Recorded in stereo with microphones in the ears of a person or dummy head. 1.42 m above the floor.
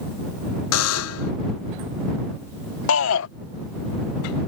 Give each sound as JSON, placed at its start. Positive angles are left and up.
{"t": 0.7, "sound": "a buzzer", "side_deg": 75}
{"t": 2.9, "sound": "a shout", "side_deg": 70}